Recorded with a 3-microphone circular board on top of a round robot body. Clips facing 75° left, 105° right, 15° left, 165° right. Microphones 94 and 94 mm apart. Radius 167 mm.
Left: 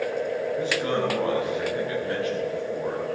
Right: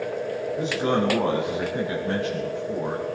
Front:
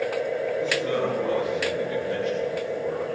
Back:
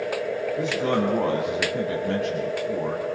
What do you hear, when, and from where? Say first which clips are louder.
0.6 s a man speaking: right 4 dB, back 4 dB; 175° right, 6 m